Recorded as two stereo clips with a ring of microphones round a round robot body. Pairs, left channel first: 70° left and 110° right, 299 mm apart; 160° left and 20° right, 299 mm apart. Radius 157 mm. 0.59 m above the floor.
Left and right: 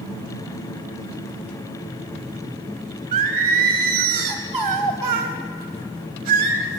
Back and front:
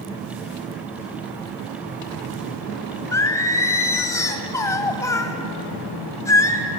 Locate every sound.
3.1 s singing: 120° right, 2 m